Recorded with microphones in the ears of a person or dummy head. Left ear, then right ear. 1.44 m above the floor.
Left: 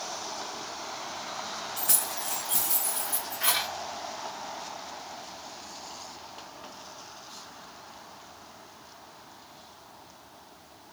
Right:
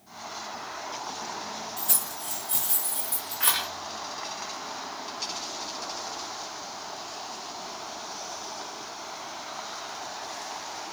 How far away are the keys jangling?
About 0.7 m.